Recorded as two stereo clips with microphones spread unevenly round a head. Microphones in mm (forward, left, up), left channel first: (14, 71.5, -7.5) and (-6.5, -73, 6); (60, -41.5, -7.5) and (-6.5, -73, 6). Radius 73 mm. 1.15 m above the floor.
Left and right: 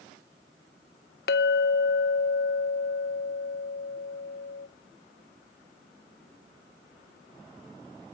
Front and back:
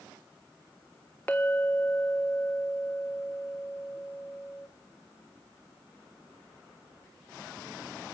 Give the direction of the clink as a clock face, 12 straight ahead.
8 o'clock.